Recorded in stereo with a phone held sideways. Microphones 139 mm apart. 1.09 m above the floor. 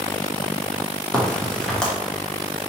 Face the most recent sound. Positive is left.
turn(degrees=5)  # may be behind; listen again after turning